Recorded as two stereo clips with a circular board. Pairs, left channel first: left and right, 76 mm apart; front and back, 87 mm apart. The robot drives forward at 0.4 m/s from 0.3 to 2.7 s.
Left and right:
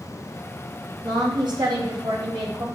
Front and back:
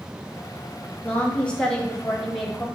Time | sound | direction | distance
1.0 | a woman speaking | 75° right | 2.5 m